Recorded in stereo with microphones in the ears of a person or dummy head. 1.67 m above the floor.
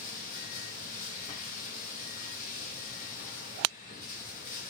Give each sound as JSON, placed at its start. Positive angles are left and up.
{"t": 0.0, "sound": "running water", "side_deg": 45, "distance_m": 1.2}